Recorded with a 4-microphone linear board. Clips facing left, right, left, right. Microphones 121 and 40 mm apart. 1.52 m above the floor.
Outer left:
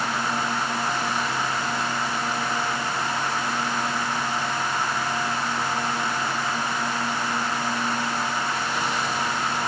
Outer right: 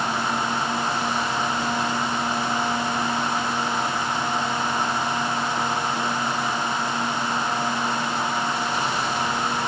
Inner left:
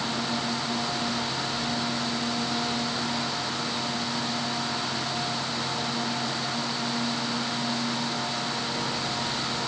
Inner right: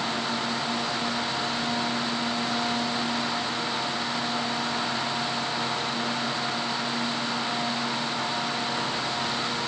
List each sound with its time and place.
Only background noise.